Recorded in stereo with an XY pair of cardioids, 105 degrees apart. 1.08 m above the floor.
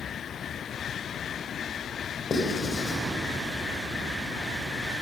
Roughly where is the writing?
Ahead left.